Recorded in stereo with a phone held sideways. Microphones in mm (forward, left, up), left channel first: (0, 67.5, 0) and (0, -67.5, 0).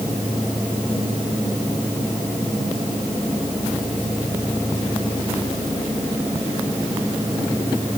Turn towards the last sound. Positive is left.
No sound to turn to.